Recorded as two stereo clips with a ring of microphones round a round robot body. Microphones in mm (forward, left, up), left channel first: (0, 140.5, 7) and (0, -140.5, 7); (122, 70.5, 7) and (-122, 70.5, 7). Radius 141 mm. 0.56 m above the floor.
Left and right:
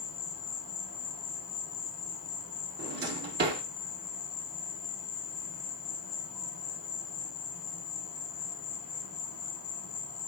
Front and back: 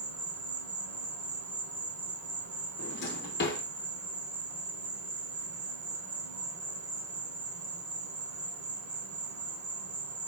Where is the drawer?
40° right, 0.7 m.